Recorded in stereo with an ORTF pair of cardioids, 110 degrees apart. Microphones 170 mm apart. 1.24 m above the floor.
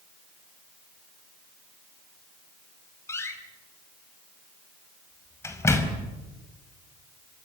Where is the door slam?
15° left, 5 m.